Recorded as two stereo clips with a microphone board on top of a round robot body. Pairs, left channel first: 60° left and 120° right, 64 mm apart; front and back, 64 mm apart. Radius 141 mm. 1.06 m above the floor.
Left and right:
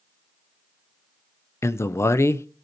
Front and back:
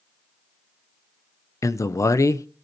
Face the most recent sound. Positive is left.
turn(degrees=25)